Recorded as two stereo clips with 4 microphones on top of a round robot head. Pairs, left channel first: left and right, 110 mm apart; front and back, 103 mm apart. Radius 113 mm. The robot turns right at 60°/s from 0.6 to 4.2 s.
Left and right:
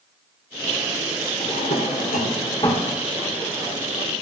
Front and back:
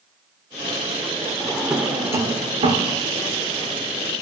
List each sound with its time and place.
1.4 s a drawer: 75° left, 1.5 m; by 2.9 s 165° left, 1.5 m